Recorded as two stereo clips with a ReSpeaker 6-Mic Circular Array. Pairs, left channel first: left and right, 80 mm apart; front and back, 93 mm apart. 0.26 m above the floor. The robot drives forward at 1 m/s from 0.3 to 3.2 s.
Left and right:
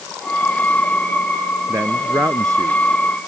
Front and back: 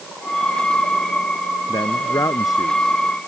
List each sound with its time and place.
1.7 s a man speaking: 35° right; by 2.8 s 50° right